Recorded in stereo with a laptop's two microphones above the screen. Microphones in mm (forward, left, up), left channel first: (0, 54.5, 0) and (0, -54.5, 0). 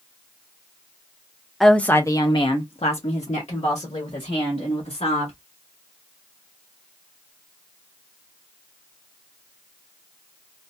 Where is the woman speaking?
Centre (ahead or behind), 0.5 m; by 5.3 s 75° left (ahead or behind), 2 m.